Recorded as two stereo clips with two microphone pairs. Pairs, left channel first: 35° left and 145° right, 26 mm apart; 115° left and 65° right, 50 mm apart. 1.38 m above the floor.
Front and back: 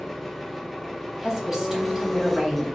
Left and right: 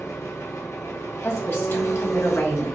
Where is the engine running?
120° left, 0.7 m.